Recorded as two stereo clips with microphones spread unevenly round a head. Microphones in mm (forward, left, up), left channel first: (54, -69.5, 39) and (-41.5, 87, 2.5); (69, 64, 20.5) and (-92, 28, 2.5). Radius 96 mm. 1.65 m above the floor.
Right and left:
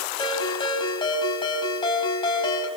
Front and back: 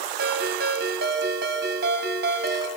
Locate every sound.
0.2 s a ringtone: 120° right, 4.5 m